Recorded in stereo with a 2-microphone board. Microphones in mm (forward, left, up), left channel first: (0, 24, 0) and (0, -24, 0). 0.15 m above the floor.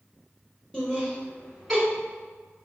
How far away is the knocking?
I don't hear knocking.